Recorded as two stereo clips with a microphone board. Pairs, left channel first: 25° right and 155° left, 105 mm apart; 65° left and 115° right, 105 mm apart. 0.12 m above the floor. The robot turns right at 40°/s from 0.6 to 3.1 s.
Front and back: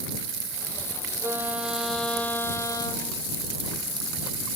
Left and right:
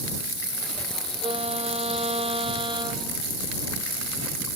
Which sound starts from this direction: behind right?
A violin, at 1.2 s.